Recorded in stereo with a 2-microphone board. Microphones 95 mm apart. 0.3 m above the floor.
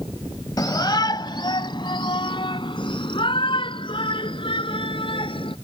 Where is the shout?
40° left (ahead or behind); by 5.5 s 65° left (ahead or behind).